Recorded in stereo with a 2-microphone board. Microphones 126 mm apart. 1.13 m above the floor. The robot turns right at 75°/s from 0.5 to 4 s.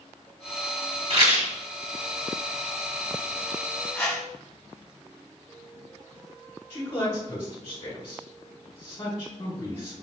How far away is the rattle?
About 1.2 m.